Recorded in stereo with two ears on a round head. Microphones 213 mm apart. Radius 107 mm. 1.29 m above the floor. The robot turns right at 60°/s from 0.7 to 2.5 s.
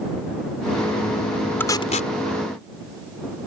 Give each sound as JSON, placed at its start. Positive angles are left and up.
{"t": 1.6, "sound": "tape being pulled", "side_deg": 10}